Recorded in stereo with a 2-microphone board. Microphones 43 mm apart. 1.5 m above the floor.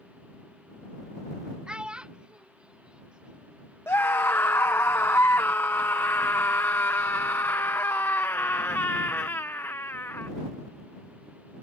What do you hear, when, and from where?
1.7 s a child speaking: 20° right (ahead or behind); by 3.6 s 25° right (ahead or behind)
3.9 s a scream: 70° left (ahead or behind)